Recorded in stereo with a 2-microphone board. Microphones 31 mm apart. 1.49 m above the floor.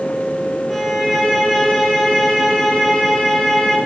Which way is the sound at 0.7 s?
Centre (ahead or behind).